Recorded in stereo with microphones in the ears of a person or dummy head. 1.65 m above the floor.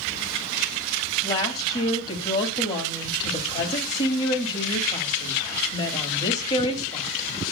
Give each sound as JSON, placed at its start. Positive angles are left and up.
{"t": 1.2, "sound": "a woman speaking", "side_deg": 25, "distance_m": 2.5}